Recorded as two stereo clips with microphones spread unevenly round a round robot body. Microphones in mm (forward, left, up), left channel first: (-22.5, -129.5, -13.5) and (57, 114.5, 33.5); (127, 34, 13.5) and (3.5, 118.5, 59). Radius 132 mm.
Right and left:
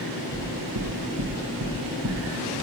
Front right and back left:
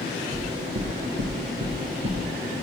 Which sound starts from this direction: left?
Knocking, at 0.3 s.